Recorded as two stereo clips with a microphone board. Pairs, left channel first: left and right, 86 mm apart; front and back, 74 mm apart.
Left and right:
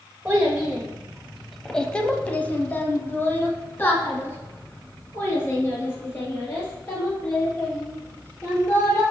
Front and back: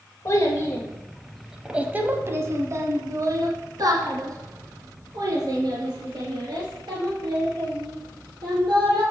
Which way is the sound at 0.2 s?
25° right.